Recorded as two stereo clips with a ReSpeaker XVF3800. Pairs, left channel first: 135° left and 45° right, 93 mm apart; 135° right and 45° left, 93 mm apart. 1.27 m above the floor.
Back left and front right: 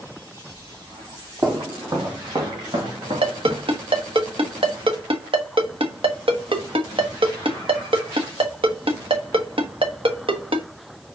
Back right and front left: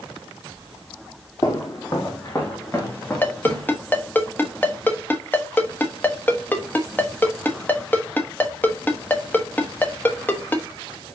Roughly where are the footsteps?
Right.